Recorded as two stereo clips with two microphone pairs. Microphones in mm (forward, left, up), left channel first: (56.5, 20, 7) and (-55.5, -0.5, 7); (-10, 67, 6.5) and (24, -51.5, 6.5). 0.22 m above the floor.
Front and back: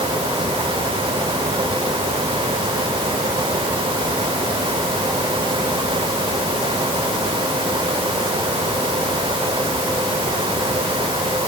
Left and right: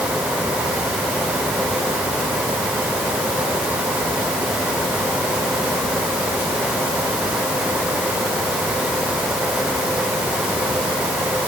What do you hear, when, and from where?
Only background noise.